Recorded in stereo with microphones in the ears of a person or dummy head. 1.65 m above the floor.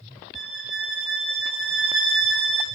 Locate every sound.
0.3 s a violin: centre (ahead or behind), 0.7 m